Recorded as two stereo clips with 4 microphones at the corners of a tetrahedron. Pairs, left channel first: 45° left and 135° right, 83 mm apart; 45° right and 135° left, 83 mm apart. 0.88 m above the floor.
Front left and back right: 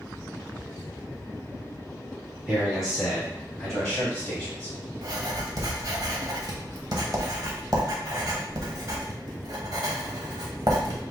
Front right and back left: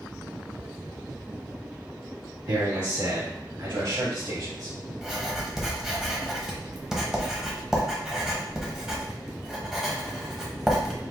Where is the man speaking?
150° left, 2 m; by 4.7 s 115° left, 3 m.